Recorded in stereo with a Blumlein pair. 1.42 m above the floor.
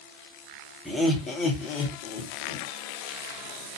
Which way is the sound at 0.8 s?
Straight ahead.